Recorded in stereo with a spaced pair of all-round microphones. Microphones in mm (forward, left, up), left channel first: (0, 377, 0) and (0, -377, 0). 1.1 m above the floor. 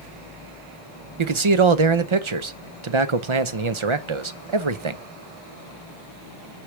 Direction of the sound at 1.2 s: 40° right (ahead or behind).